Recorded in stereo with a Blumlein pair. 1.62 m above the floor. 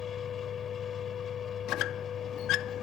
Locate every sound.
0.0 s a machine running: 25° left
1.7 s a squeak: 40° left